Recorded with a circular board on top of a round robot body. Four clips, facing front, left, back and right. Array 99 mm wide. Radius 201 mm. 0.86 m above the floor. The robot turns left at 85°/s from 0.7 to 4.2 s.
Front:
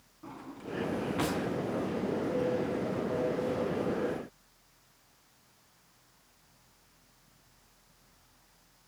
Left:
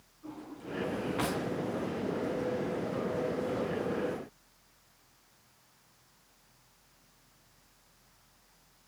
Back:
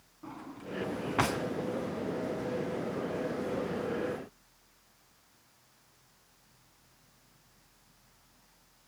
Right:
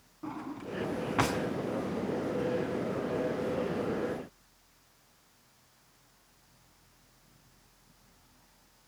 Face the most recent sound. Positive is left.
turn(degrees=-30)